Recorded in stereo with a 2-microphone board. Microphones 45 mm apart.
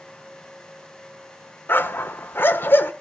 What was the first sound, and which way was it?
A dog barking, 55° left (ahead or behind).